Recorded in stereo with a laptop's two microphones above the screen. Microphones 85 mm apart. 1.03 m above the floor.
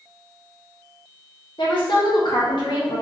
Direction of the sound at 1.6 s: 65° left (ahead or behind).